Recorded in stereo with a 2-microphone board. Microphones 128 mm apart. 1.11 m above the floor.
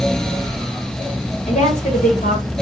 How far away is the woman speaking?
About 2 m.